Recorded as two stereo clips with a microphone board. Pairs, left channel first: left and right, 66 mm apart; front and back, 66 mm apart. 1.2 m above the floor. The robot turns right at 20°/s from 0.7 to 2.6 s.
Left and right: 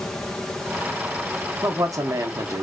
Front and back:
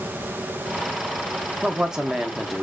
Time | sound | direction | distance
1.6 | a man speaking | 110° right | 0.5 m